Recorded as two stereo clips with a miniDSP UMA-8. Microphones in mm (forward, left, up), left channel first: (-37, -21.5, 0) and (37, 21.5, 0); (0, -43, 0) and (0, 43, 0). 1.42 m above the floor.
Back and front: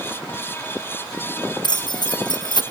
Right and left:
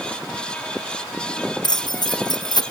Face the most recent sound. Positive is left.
turn(degrees=-120)